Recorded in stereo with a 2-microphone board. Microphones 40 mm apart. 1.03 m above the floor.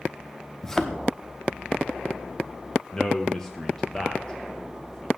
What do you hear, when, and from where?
0.6 s a thud: 10° left (ahead or behind), 0.8 m
2.9 s a man speaking: 10° left (ahead or behind), 1.0 m